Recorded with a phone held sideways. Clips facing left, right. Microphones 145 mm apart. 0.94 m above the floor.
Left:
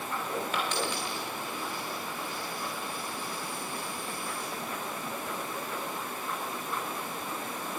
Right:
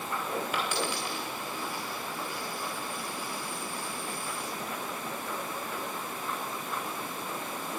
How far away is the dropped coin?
About 4.5 m.